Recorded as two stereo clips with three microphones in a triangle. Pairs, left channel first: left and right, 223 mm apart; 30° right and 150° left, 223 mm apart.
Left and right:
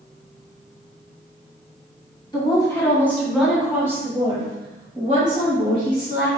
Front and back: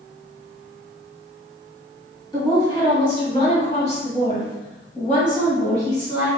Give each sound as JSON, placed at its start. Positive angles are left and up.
{"t": 2.3, "sound": "a woman speaking", "azimuth_deg": 30, "distance_m": 1.9}